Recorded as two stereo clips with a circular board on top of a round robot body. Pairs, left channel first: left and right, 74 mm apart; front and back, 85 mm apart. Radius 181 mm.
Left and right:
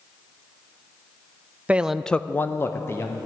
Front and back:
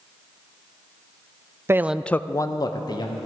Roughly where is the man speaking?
Behind right.